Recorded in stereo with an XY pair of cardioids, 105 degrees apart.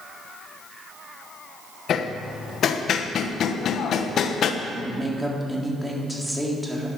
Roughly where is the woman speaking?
Ahead.